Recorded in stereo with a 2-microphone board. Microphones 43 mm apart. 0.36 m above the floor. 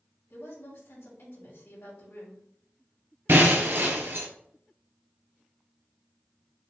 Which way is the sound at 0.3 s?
65° left (ahead or behind).